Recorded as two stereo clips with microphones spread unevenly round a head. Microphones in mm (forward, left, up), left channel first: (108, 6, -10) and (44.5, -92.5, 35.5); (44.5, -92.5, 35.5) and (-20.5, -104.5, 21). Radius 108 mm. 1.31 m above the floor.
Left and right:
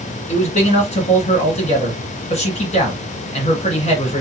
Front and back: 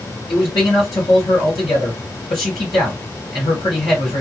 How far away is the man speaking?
About 1.7 m.